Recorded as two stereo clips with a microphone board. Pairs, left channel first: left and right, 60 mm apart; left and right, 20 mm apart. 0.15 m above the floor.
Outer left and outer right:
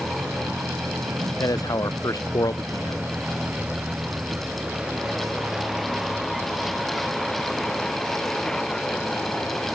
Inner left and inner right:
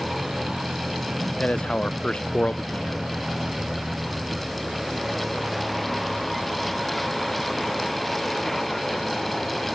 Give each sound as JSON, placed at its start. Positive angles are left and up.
{"t": 0.0, "sound": "a vehicle", "side_deg": -70}
{"t": 1.4, "sound": "a man speaking", "side_deg": 85}